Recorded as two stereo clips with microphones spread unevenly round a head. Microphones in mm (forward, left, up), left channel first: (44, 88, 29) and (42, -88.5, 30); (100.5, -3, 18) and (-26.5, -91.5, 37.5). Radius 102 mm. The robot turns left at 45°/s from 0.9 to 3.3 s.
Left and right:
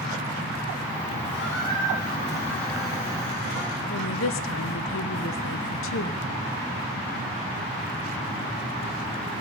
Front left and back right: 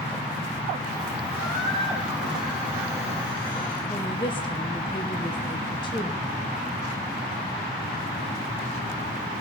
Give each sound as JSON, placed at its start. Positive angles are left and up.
{"t": 1.3, "sound": "a squeak", "azimuth_deg": 175, "distance_m": 6.5}
{"t": 3.9, "sound": "a woman speaking", "azimuth_deg": 105, "distance_m": 0.9}